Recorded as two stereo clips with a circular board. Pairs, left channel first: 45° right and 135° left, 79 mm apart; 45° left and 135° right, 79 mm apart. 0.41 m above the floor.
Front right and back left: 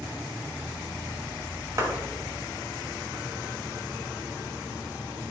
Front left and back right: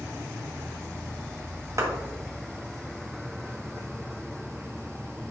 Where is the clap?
Straight behind, 2.0 m.